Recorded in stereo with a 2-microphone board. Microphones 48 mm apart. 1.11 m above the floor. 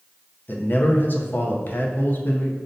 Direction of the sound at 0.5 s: 40° left (ahead or behind).